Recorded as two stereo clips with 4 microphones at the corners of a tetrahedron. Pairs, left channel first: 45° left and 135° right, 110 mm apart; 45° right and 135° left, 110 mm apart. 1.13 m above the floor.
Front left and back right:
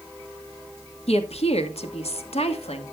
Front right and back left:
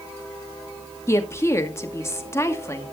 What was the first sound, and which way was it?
A woman speaking, 20° left.